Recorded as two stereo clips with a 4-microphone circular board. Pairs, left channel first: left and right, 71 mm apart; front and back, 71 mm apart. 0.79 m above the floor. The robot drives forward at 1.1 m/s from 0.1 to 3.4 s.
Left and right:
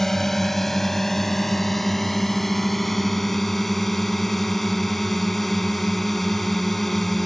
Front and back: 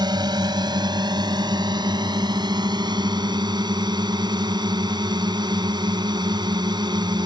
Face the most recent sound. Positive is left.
turn(degrees=175)